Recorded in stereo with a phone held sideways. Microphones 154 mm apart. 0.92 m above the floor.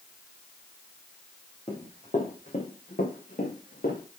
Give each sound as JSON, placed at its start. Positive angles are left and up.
{"t": 1.7, "sound": "running footsteps", "side_deg": 40, "distance_m": 3.5}